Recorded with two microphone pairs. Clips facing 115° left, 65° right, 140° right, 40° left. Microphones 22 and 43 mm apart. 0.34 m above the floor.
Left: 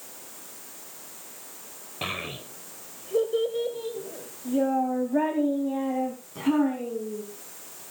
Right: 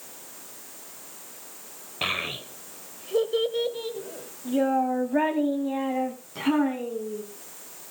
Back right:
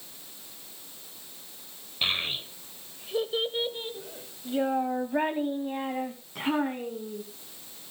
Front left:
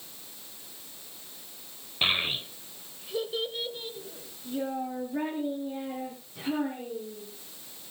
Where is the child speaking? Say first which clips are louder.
Right 4 dB, front left 2 dB; 20° right, 1.0 m; by 7.2 s 120° right, 2.5 m.